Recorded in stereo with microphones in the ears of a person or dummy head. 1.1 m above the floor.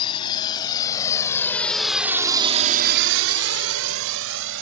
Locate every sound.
0.0 s a drone: 25° left (ahead or behind); by 4.6 s 65° right (ahead or behind)